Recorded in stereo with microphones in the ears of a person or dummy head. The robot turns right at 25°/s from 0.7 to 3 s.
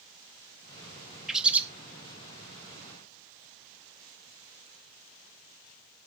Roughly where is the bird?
Centre.